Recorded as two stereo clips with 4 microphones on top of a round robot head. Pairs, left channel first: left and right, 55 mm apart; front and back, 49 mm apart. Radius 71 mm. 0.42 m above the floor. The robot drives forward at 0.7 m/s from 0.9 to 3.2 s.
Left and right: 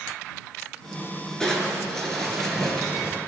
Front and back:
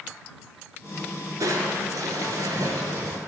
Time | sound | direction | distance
1.4 | crushing | 175° left | 5 m